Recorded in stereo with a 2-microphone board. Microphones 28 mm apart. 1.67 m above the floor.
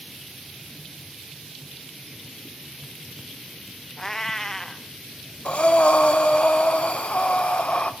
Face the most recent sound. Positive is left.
turn(degrees=45)  # may be behind; listen again after turning